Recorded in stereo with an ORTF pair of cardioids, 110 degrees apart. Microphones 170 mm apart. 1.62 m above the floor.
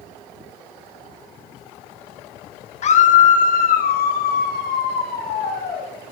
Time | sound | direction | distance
2.8 | a scream | 40° left | 1.7 m